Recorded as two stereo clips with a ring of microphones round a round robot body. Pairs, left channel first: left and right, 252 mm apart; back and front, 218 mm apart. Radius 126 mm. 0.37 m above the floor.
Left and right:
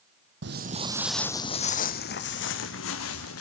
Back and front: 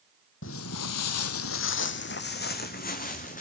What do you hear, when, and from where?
0.4 s footsteps: 135° right, 1.0 m; by 3.4 s 125° left, 3 m